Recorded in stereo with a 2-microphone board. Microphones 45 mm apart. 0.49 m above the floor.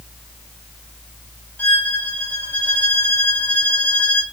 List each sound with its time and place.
1.6 s a violin: 35° left (ahead or behind), 1.8 m